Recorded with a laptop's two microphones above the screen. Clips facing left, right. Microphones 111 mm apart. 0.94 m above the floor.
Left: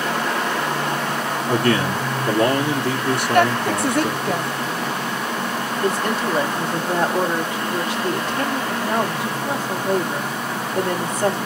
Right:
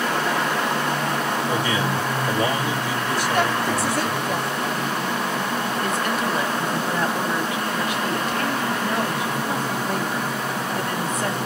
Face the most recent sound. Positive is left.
turn(degrees=30)  # may be behind; listen again after turning